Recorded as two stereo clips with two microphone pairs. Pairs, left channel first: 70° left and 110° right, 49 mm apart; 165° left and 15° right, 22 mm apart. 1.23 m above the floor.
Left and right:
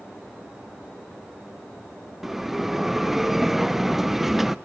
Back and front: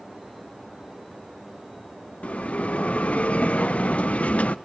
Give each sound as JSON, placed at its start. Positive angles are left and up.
{"t": 2.2, "sound": "a bell", "azimuth_deg": 165, "distance_m": 0.5}